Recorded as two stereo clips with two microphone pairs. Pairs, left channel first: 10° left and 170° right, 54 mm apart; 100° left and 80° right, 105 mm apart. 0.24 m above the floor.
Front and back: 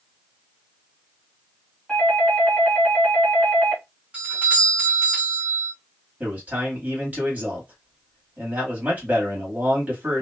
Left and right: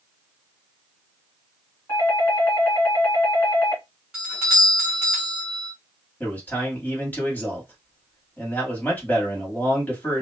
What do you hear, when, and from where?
1.9 s a doorbell: 75° left, 1.6 m
4.1 s a doorbell: 140° right, 1.4 m
6.2 s a man speaking: 160° left, 1.4 m